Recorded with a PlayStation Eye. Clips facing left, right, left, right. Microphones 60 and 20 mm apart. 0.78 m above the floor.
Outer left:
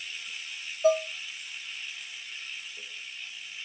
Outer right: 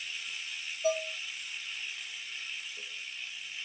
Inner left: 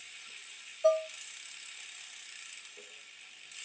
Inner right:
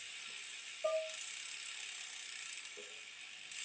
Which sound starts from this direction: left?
Dishes clattering, at 0.8 s.